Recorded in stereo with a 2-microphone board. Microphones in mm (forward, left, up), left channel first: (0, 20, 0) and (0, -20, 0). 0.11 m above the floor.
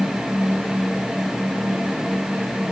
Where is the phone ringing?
No phone ringing in this recording.